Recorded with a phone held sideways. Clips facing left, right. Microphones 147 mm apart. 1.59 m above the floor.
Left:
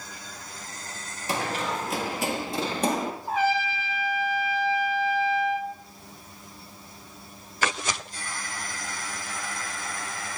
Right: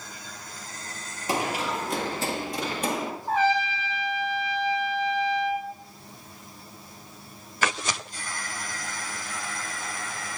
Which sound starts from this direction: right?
Running footsteps, at 1.3 s.